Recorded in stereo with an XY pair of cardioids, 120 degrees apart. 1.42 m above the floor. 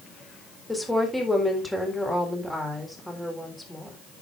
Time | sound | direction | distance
0.7 | a woman speaking | 5° left | 4 m